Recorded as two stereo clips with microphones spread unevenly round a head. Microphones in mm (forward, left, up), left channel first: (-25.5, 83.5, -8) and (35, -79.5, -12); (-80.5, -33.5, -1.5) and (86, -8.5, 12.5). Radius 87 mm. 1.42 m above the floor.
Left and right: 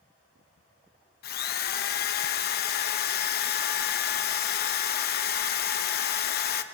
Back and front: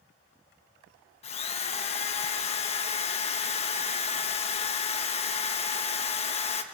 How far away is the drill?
About 0.9 m.